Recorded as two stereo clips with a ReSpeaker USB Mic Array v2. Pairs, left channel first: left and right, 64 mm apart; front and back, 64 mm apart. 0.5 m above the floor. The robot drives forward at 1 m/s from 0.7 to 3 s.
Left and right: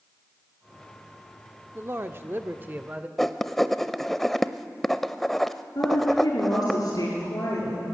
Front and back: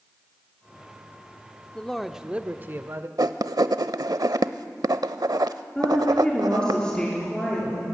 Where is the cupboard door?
No cupboard door in this recording.